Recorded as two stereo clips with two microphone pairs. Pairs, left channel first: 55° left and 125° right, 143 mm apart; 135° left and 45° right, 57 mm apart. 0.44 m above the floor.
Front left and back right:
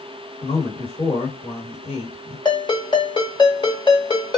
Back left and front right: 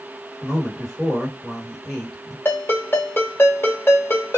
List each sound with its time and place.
0.4 s a man speaking: 60° left, 2 m
2.5 s a ringtone: 100° left, 1.2 m